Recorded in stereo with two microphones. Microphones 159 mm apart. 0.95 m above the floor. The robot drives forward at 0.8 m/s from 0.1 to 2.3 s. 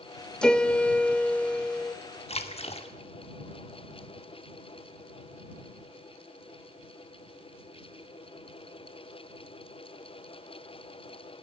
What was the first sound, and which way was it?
A piano, 5° left (ahead or behind).